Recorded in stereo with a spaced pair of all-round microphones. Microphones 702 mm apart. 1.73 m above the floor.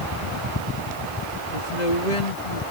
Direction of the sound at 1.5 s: 80° left.